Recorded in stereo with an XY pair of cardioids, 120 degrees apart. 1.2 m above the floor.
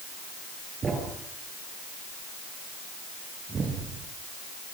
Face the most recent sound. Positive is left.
turn(degrees=-30)